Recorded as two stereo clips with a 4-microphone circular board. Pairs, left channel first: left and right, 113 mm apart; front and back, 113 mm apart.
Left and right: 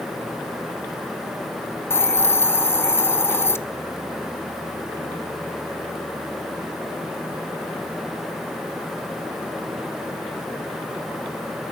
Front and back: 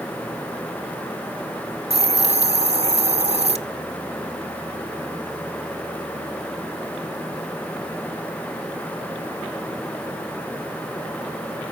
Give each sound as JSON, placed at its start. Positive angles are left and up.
{"t": 1.9, "sound": "a hiss", "azimuth_deg": 160, "distance_m": 0.6}